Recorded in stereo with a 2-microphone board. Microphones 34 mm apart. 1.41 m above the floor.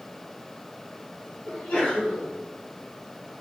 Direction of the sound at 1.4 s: 25° left (ahead or behind).